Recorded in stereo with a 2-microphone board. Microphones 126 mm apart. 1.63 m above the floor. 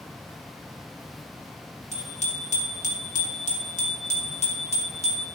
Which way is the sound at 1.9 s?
65° left (ahead or behind).